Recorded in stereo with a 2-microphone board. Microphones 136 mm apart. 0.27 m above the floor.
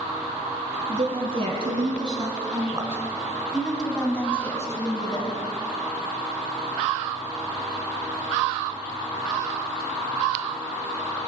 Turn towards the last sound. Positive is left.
turn(degrees=35)  # may be behind; listen again after turning